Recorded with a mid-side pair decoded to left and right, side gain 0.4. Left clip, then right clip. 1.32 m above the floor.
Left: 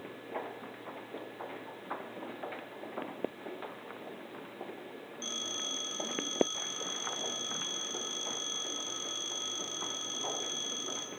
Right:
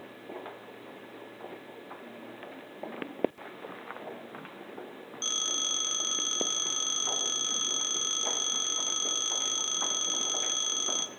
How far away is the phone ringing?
About 1.3 m.